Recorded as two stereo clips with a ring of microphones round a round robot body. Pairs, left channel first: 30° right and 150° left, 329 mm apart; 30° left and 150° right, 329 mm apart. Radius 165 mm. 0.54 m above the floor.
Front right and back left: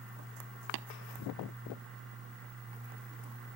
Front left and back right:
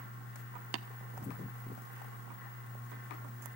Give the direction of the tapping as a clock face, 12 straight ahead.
6 o'clock.